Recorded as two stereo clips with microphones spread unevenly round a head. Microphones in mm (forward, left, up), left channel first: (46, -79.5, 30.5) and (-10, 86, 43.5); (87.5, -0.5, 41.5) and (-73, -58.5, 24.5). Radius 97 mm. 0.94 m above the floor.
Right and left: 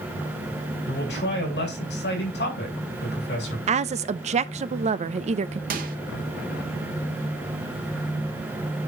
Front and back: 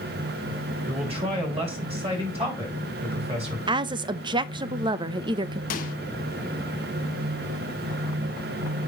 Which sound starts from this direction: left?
A microwave, at 5.7 s.